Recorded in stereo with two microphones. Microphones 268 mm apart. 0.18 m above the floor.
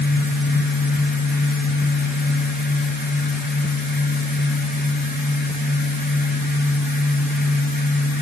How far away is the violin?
No violin in this recording.